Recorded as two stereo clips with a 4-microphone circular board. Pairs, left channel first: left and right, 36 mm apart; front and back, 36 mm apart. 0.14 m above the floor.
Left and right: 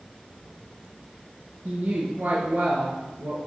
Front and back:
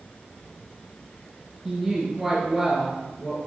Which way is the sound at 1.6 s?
95° right.